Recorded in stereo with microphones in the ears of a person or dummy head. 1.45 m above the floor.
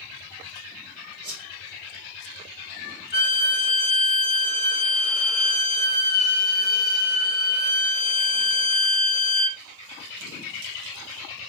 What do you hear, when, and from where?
1.2 s a whoosh: 55° right (ahead or behind), 2.5 m
3.1 s a violin: 40° right (ahead or behind), 2.5 m